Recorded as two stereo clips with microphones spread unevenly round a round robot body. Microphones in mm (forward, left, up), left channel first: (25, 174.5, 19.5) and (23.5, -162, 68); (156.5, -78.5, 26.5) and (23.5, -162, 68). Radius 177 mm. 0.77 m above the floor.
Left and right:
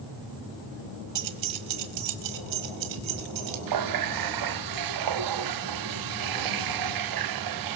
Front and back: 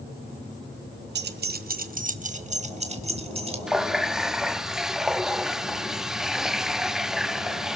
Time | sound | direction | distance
1.1 | keys jangling | 135° right | 1.2 m
3.7 | a running tap | 55° right | 0.9 m